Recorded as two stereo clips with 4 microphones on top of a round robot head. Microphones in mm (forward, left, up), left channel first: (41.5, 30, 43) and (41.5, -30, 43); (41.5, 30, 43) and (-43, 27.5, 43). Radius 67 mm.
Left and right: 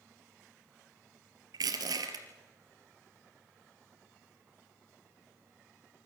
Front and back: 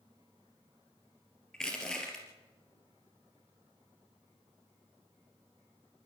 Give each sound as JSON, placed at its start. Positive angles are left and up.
{"t": 1.5, "sound": "crushing", "azimuth_deg": -85, "distance_m": 3.0}